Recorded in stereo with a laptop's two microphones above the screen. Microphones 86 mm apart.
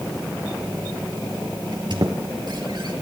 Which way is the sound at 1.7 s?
55° right (ahead or behind).